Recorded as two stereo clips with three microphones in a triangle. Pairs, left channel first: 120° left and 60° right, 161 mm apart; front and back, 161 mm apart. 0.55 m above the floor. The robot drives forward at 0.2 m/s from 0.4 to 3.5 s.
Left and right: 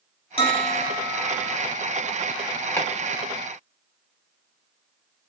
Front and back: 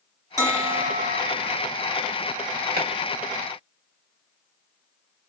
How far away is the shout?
I don't hear a shout.